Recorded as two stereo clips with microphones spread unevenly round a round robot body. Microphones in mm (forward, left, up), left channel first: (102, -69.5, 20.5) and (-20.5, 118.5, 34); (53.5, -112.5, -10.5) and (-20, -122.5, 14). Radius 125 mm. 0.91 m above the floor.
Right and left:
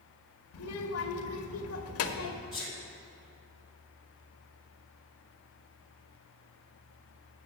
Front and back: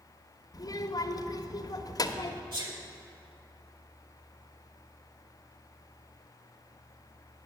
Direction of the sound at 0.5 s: 35° right.